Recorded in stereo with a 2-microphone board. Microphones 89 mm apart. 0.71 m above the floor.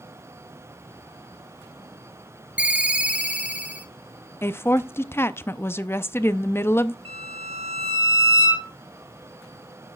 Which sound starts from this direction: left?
A woman speaking, at 4.4 s.